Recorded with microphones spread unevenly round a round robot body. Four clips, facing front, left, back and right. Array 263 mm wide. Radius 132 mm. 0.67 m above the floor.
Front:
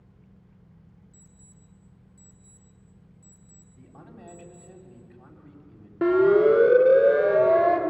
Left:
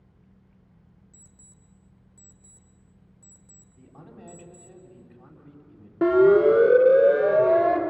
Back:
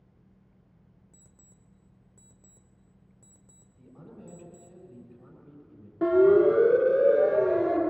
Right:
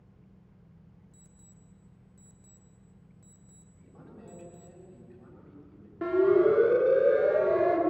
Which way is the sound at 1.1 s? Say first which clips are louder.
Right 1 dB, front 5 dB; 170° left.